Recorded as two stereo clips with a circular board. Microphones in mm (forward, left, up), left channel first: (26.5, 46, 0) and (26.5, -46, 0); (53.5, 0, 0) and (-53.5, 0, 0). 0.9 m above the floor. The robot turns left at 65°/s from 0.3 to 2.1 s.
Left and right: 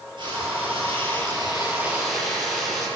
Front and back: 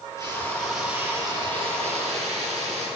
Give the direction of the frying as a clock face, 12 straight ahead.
2 o'clock.